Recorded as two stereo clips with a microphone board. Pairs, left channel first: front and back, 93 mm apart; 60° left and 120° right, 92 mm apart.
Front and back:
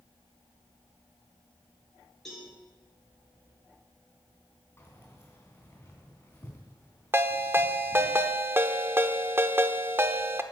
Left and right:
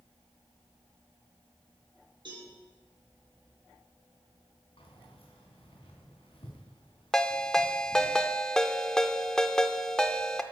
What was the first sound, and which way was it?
A cowbell, 90° right.